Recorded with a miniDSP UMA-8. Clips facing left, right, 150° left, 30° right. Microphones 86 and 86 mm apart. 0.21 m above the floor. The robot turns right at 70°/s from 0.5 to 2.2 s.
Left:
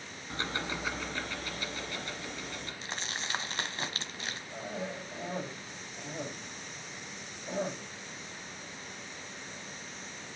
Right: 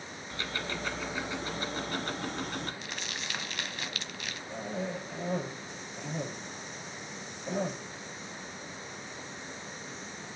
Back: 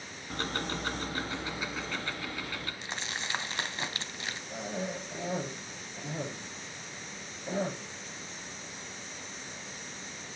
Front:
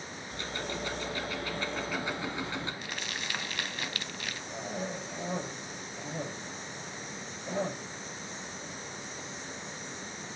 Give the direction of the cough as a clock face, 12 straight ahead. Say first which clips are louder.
Right 4 dB, back 1 dB; 5 o'clock.